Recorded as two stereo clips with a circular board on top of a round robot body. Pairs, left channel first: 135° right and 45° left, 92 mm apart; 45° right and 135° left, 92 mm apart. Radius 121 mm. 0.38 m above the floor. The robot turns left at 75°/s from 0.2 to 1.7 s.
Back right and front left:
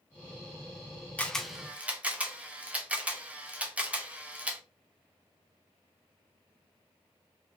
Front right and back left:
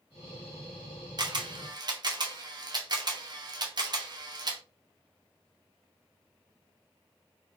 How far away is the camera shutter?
About 0.9 m.